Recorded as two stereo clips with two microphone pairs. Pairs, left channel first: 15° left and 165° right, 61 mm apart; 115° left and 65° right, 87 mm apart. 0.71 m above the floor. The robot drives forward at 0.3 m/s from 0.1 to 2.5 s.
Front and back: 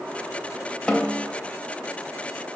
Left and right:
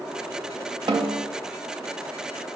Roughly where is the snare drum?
Ahead right.